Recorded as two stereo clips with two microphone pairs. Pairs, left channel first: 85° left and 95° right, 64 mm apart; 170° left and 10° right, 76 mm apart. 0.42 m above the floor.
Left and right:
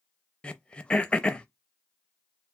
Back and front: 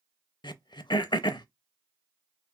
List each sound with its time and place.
0.4 s throat clearing: 165° left, 0.5 m